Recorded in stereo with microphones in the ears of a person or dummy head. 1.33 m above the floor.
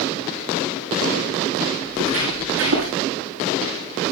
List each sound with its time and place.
1.9 s footsteps: 80° right, 7 m